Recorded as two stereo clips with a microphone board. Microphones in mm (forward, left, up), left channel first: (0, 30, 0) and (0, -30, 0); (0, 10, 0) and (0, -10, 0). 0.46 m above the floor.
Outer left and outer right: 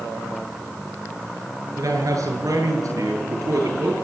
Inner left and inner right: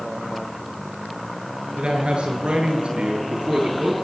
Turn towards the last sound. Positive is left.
turn(degrees=-70)  # may be behind; listen again after turning